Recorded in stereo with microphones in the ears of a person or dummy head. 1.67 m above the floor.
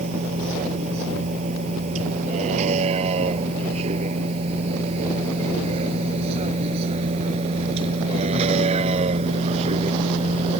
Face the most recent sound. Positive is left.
turn(degrees=-35)  # may be behind; listen again after turning